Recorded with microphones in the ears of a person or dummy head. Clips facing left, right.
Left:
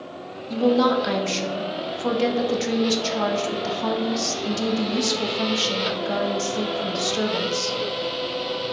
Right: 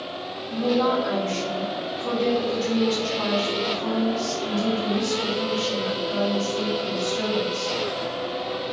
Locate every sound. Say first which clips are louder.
0.5 s a woman speaking: left 3 dB; 75° left (ahead or behind), 0.6 m